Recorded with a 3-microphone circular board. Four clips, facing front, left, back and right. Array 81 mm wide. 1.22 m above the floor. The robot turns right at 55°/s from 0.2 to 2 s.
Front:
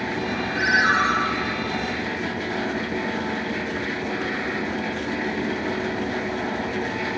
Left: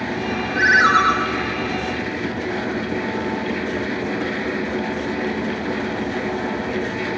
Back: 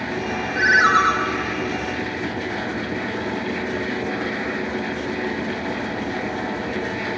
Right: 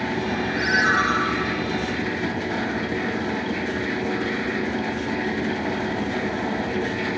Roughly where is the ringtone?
Left.